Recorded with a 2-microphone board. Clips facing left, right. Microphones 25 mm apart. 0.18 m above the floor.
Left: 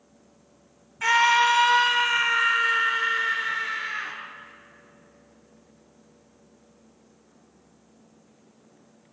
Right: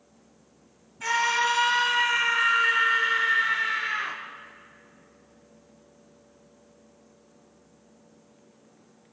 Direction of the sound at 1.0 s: 30° left (ahead or behind).